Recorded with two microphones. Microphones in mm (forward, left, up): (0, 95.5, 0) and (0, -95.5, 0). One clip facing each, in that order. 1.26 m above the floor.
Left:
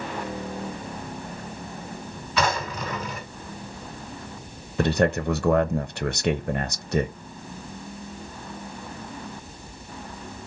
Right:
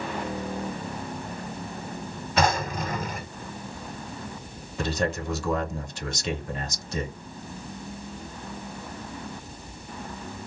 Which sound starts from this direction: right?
A drawer, at 2.4 s.